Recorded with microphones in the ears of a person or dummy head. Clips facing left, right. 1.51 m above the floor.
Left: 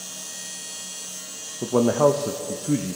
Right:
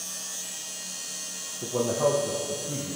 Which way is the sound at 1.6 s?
80° left.